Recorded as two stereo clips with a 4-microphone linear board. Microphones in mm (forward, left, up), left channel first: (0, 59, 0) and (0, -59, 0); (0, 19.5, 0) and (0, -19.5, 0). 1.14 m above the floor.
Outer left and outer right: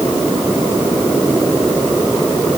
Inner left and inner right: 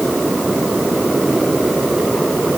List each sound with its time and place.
Only background noise.